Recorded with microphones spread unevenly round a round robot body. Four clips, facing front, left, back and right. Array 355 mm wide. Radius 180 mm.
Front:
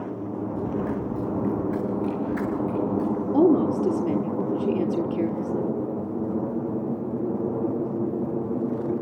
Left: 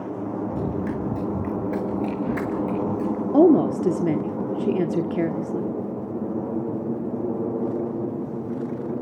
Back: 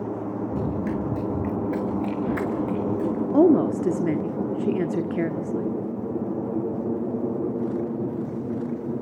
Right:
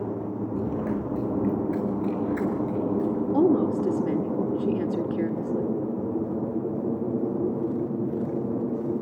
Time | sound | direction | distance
0.5 | running footsteps | 145° left | 7 m
3.3 | a woman speaking | 100° left | 1.3 m